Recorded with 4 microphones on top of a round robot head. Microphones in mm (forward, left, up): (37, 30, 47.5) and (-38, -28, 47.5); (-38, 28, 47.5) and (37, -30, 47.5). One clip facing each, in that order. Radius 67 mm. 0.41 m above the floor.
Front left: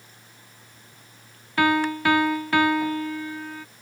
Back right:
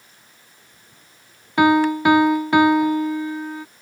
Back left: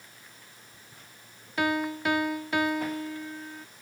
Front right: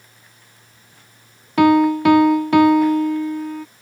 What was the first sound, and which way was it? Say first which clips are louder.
A piano: back right 6 dB, front right 15 dB; 70° right.